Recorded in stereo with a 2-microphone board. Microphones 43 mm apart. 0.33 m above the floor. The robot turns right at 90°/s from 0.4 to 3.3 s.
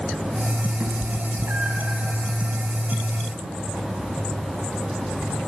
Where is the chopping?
I don't hear chopping.